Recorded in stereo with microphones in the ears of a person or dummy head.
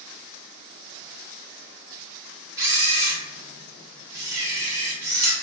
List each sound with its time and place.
2.6 s a camera shutter: 10° right (ahead or behind), 0.6 m